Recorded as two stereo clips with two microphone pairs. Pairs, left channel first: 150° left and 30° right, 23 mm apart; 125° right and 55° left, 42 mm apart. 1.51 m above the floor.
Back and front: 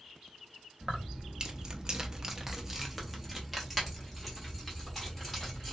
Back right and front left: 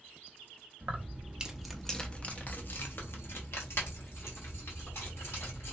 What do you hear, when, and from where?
0.8 s keys jangling: 15° left, 0.8 m; by 5.8 s 130° right, 2.5 m